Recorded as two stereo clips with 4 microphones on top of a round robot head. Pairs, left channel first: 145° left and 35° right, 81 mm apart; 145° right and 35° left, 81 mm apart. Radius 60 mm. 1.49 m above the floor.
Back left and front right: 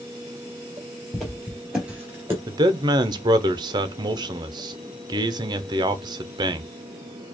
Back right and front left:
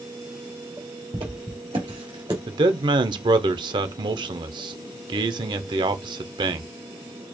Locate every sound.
1.1 s footsteps: 60° left, 2 m; by 2.4 s 10° left, 1.6 m
2.5 s a man speaking: 5° left, 0.8 m